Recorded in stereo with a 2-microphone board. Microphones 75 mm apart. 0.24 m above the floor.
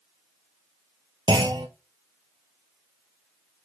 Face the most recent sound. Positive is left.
turn(degrees=-85)